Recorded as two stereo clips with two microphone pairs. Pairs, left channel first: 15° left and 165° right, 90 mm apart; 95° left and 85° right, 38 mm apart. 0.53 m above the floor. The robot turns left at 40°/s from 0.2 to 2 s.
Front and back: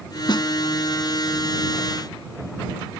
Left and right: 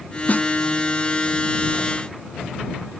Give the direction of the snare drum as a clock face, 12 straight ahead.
10 o'clock.